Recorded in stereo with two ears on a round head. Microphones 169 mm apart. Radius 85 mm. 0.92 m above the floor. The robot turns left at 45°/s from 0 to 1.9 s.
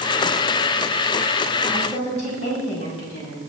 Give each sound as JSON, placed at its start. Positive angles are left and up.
{"t": 1.7, "sound": "a woman speaking", "side_deg": 45, "distance_m": 6.0}